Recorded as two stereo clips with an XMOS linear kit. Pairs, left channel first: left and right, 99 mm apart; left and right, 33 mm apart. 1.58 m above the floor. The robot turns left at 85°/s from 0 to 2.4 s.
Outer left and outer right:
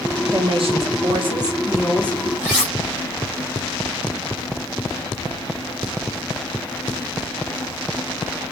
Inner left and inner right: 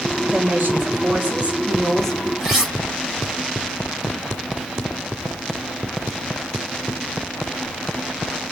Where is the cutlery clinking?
10° right (ahead or behind), 1.9 m.